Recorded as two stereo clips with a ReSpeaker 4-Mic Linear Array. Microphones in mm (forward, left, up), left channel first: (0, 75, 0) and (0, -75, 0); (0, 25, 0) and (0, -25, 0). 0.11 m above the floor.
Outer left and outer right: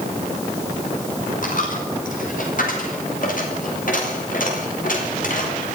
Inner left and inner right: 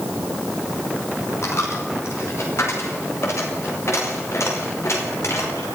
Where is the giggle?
I don't hear a giggle.